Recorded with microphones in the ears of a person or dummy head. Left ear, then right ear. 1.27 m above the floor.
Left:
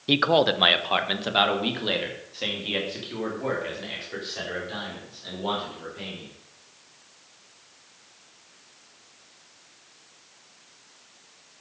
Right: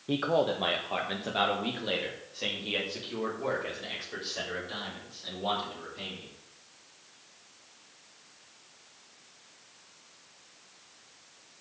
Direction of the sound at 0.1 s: 70° left (ahead or behind).